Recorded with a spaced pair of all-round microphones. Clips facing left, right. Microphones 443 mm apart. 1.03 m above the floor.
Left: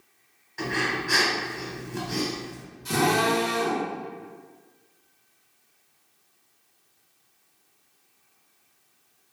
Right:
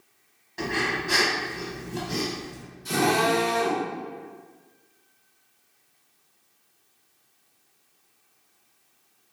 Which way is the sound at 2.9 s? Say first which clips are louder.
Even; 25° left (ahead or behind).